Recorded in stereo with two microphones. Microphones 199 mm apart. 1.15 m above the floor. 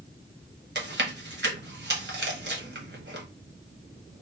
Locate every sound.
0.8 s chewing: 60° right (ahead or behind), 1.0 m